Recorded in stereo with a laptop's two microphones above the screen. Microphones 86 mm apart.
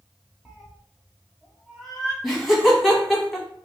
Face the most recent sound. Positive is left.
turn(degrees=0)  # may be behind; listen again after turning